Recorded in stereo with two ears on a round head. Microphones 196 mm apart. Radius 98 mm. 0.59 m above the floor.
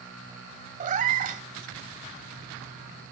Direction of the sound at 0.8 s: 35° right (ahead or behind).